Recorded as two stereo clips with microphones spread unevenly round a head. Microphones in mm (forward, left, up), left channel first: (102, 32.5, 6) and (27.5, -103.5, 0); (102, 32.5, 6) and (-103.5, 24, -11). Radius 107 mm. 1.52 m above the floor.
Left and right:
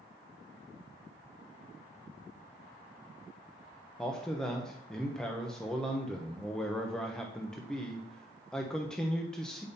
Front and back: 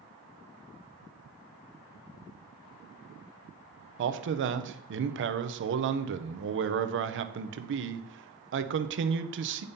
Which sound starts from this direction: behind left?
A man speaking, at 4.0 s.